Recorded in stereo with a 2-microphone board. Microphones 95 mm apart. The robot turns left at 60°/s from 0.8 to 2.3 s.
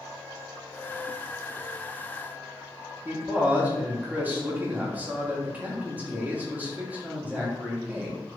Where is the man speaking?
15° right (ahead or behind), 0.7 m.